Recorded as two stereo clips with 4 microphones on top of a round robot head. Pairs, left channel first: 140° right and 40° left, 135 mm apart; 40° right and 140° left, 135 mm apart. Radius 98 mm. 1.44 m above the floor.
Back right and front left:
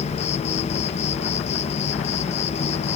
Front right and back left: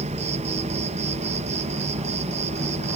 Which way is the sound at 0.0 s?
Straight behind.